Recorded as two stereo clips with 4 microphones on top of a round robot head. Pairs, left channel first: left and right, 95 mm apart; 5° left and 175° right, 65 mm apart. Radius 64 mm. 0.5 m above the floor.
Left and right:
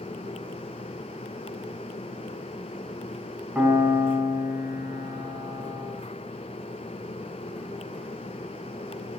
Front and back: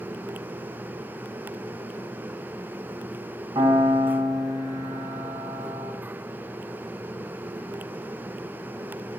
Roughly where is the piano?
Behind.